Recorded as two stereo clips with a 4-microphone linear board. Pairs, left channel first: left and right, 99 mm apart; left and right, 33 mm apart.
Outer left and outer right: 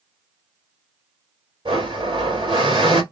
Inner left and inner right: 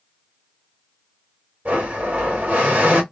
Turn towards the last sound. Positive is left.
turn(degrees=-55)  # may be behind; listen again after turning